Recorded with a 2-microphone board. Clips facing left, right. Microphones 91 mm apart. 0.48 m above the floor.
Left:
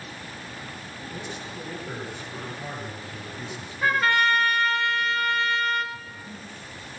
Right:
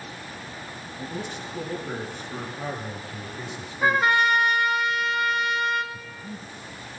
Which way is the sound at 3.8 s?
15° right (ahead or behind).